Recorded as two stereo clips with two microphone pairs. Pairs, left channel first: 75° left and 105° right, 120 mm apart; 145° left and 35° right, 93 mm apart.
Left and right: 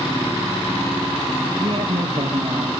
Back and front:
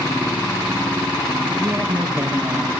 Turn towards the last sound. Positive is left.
turn(degrees=-90)